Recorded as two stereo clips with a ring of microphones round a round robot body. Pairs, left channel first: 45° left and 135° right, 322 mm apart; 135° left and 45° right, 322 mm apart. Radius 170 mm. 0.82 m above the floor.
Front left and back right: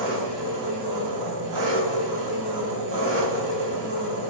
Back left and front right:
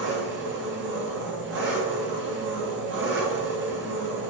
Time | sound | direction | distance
0.0 | an engine running | 100° right | 3 m